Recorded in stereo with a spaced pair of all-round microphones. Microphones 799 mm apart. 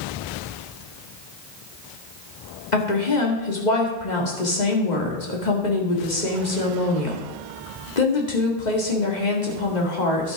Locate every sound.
2.7 s a woman speaking: 60° left (ahead or behind), 2 m